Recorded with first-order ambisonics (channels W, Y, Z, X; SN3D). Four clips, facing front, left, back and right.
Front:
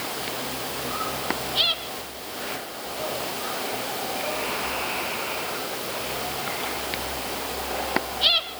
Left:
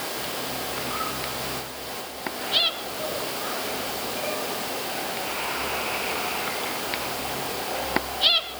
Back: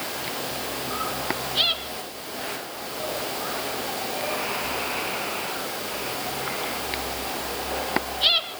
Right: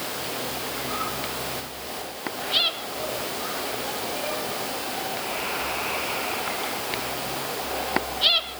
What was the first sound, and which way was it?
Only background noise.